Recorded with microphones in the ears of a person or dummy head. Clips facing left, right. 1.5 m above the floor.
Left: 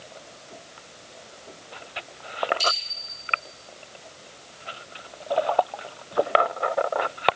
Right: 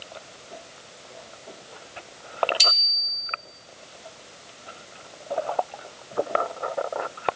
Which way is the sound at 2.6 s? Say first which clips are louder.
Left 4 dB; 75° right (ahead or behind).